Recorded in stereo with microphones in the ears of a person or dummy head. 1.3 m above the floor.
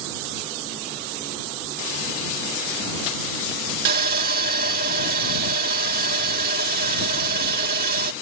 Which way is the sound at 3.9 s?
50° right (ahead or behind).